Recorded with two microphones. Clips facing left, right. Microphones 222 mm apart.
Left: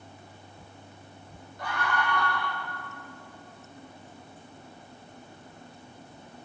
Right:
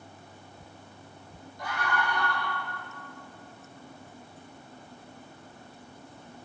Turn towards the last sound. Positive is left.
turn(degrees=60)  # may be behind; listen again after turning